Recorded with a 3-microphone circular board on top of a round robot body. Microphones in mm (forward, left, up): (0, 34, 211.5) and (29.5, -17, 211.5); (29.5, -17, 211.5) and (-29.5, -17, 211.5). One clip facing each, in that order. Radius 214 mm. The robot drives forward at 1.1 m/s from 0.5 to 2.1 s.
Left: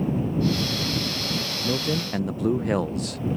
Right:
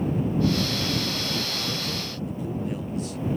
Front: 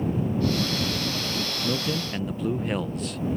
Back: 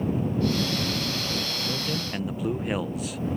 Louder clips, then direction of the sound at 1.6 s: Left 5 dB, front 3 dB; 70° left.